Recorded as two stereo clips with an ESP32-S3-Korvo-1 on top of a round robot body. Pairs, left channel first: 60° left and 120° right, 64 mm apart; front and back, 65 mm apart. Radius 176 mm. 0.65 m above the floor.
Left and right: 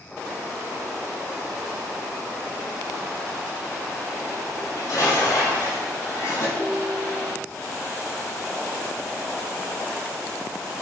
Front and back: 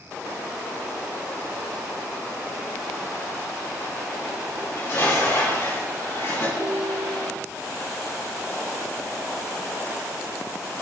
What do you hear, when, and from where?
4.6 s dishes clattering: 40° left, 5.5 m
6.6 s a ringtone: 170° left, 3 m